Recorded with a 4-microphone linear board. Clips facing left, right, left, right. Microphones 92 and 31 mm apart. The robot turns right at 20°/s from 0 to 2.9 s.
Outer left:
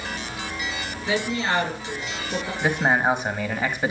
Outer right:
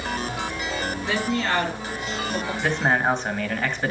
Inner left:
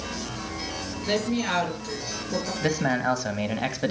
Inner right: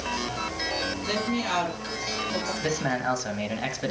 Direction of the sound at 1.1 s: 5° left (ahead or behind).